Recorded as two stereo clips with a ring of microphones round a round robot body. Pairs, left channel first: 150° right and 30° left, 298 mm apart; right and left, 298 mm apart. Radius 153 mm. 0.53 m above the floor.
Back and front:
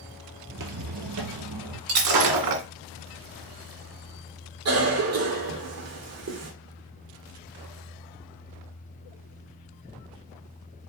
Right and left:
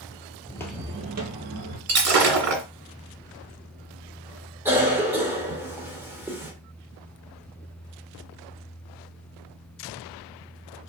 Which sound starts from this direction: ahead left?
Breaking glass, at 1.9 s.